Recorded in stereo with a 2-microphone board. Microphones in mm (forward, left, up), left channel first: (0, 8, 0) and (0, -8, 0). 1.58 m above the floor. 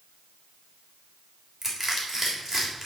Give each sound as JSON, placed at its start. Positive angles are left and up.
{"t": 1.6, "sound": "crushing", "side_deg": -5, "distance_m": 3.0}